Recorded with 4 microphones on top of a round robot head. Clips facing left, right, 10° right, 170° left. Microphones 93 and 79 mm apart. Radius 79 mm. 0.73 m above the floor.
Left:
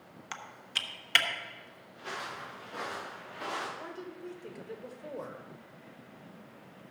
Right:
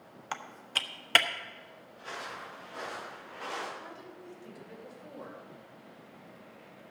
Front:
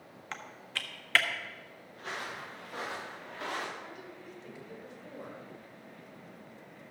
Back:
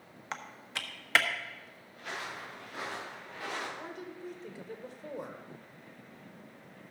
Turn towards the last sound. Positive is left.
turn(degrees=125)